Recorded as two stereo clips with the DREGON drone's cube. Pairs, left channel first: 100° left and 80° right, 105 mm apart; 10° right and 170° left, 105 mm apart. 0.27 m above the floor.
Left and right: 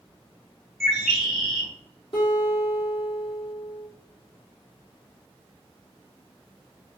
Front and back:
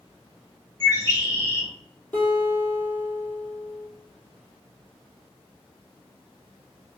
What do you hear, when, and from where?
0.8 s a bird: 15° left, 1.2 m
2.1 s a guitar: 65° left, 1.8 m